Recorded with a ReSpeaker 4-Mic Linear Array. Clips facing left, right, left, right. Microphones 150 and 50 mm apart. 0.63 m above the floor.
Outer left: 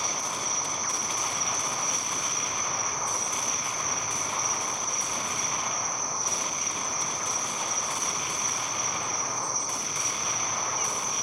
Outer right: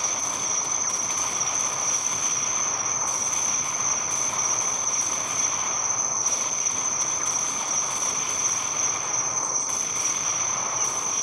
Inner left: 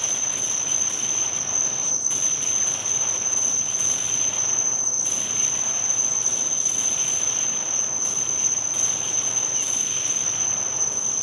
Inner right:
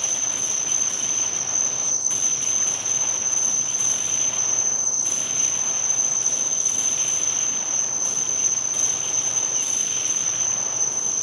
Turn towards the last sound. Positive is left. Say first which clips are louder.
# even, even
turn(degrees=30)  # may be behind; listen again after turning